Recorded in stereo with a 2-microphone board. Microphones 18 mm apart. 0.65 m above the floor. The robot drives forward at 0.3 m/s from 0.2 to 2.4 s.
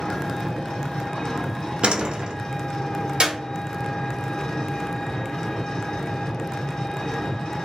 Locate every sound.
0.0 s an engine running: 60° left (ahead or behind), 1.5 m; by 7.6 s 70° left (ahead or behind), 1.4 m
1.8 s a door slam: 70° right (ahead or behind), 0.6 m; by 2.3 s 65° right (ahead or behind), 0.6 m
3.2 s a clap: 55° right (ahead or behind), 1.0 m